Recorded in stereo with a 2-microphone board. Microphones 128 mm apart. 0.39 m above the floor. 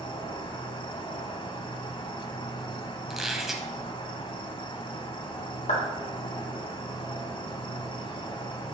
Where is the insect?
40° left (ahead or behind), 1.1 m.